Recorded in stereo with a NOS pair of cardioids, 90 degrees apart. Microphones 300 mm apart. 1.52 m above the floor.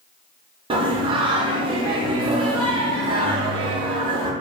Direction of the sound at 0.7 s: 15° right.